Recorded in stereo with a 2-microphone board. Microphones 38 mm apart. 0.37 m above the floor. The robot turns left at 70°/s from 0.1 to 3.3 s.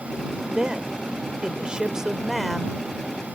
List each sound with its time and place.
0.5 s a woman speaking: 20° right (ahead or behind); by 3.2 s 25° left (ahead or behind)